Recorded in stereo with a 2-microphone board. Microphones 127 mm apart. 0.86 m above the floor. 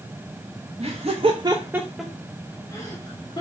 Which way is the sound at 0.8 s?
55° right (ahead or behind).